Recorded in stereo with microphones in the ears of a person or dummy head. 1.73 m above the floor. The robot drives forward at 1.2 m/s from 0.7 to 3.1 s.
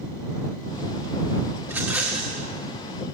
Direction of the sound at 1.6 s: 10° right (ahead or behind).